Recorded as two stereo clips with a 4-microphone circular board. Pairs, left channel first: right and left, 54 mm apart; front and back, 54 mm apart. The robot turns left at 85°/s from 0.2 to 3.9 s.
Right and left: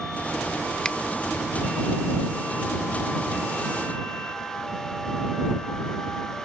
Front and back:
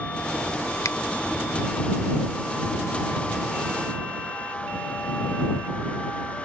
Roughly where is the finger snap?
Ahead.